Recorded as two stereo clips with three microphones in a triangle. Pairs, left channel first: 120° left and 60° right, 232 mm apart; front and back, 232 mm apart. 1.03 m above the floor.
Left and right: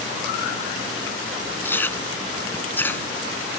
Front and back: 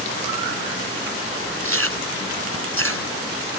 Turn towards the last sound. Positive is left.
turn(degrees=-160)